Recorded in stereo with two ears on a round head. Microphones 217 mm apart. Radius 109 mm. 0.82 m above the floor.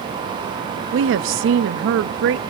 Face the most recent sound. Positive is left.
turn(degrees=-55)  # may be behind; listen again after turning